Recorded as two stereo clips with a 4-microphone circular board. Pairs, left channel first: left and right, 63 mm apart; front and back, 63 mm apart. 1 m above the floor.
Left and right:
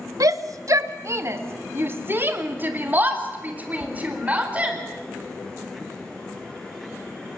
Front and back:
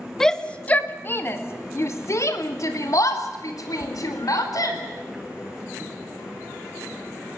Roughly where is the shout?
Right.